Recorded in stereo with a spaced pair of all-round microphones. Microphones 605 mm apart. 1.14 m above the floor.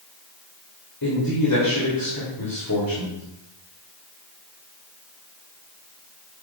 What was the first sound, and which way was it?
A man speaking, 35° left (ahead or behind).